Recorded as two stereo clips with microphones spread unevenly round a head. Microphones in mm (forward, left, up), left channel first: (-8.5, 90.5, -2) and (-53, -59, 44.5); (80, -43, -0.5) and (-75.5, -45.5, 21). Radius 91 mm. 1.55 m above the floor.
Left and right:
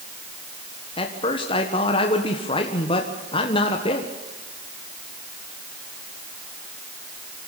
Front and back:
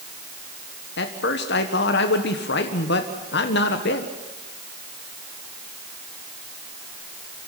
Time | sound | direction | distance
1.0 | a man speaking | 15° left | 1.5 m